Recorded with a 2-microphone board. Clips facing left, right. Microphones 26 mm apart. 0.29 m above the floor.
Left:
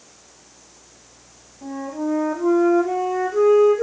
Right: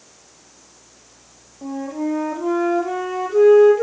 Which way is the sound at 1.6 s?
50° right (ahead or behind).